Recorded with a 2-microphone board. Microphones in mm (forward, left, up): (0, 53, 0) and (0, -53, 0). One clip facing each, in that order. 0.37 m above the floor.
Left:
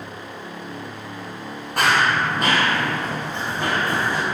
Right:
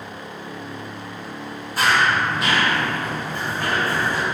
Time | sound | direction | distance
1.8 | running footsteps | 65° left (ahead or behind) | 0.6 m